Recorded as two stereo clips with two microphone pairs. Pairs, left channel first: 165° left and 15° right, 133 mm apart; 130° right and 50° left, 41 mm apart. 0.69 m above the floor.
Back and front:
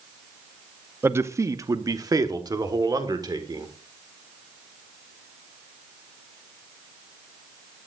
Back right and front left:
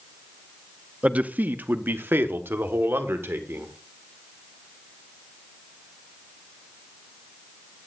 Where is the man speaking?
40° left, 0.6 m.